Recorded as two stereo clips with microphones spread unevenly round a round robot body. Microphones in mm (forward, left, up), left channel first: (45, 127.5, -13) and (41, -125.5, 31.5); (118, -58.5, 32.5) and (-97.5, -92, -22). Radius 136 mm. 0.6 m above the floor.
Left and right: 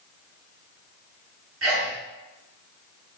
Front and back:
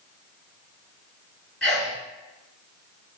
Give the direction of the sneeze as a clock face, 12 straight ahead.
3 o'clock.